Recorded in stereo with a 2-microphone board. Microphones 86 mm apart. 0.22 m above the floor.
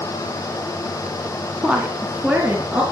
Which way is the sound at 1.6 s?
10° right (ahead or behind).